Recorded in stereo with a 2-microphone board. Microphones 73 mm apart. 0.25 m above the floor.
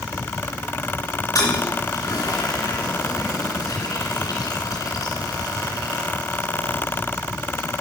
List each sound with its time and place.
1.4 s a toilet flushing: 65° left (ahead or behind), 3 m